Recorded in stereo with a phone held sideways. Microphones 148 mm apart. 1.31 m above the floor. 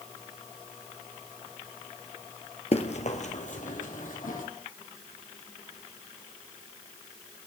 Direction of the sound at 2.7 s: 45° left (ahead or behind).